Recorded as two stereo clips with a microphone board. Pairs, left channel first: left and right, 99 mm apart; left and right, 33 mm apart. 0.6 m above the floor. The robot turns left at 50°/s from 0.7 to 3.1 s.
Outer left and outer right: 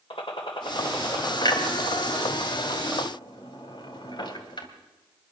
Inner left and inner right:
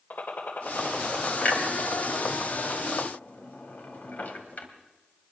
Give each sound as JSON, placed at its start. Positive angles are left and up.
{"t": 0.1, "sound": "a gunshot", "azimuth_deg": 85, "distance_m": 3.0}
{"t": 1.4, "sound": "a clunk", "side_deg": 45, "distance_m": 2.5}